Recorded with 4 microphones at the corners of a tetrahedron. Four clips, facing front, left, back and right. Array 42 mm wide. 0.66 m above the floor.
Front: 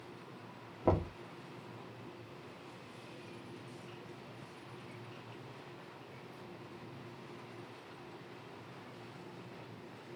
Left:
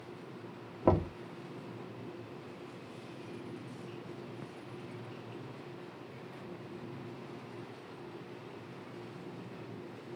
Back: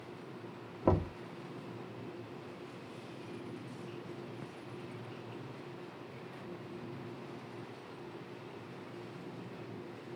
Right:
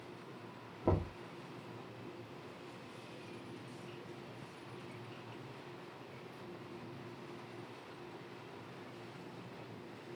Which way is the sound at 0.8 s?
95° left.